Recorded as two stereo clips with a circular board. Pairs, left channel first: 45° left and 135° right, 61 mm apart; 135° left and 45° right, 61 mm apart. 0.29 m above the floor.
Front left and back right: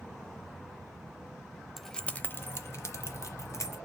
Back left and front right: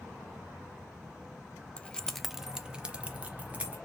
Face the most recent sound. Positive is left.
turn(degrees=20)